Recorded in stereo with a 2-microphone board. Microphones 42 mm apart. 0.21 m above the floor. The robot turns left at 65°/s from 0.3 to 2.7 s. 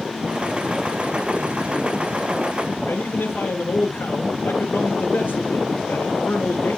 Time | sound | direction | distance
2.9 | a man speaking | 50° left (ahead or behind) | 3 m